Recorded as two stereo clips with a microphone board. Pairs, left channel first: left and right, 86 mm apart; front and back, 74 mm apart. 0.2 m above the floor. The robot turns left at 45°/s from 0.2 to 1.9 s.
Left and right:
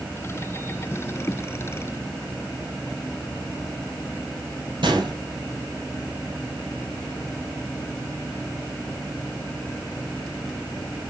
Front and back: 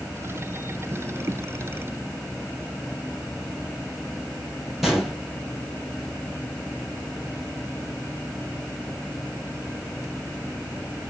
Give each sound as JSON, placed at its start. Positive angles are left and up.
{"t": 4.8, "sound": "a gunshot", "azimuth_deg": -95, "distance_m": 4.5}